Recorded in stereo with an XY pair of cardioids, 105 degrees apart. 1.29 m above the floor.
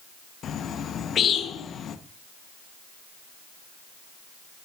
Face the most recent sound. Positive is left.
turn(degrees=55)